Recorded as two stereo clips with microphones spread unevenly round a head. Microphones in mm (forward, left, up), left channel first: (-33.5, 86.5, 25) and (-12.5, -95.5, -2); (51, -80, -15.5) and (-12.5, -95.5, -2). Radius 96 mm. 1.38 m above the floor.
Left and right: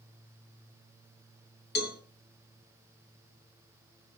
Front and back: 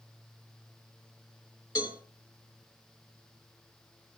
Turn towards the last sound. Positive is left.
turn(degrees=70)